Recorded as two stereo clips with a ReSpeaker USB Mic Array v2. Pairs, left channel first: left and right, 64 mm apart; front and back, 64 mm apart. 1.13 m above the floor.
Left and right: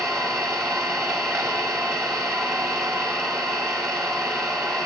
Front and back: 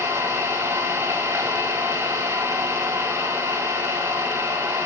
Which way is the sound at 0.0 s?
130° right.